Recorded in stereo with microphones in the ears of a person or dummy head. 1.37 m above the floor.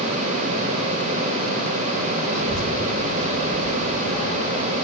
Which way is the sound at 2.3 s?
Centre (ahead or behind).